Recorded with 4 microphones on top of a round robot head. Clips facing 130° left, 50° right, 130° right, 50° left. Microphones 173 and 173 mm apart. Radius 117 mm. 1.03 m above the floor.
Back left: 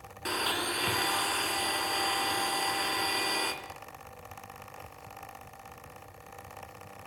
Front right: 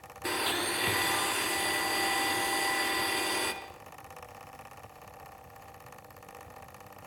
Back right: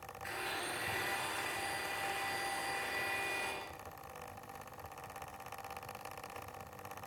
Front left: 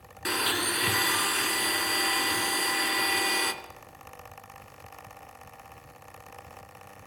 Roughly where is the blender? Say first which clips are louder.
Front right 1 dB, front left 12 dB; ahead left.